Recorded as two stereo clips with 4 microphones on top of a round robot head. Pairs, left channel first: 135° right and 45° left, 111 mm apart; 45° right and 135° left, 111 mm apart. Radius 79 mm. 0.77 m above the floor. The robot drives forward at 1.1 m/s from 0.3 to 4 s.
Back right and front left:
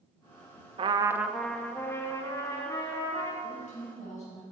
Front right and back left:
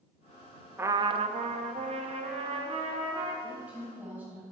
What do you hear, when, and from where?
0.8 s a trumpet: 65° left, 0.6 m; by 3.3 s 170° left, 2.5 m
3.4 s a woman speaking: 145° right, 4 m; by 4.5 s 150° right, 4.5 m